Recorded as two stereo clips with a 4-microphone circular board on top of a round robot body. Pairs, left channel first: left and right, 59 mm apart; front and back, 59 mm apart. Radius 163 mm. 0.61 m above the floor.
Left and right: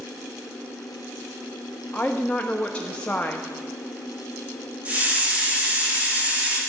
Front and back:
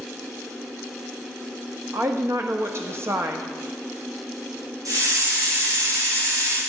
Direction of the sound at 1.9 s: 155° left.